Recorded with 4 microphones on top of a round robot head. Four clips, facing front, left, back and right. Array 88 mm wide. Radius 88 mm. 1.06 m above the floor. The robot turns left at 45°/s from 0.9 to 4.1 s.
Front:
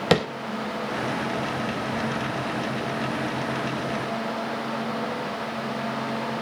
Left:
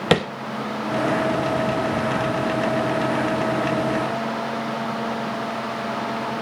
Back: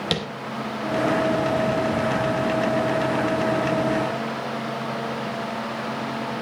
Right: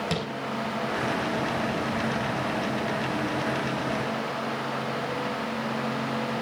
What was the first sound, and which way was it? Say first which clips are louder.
Tapping: left 11 dB, front 9 dB; 55° left.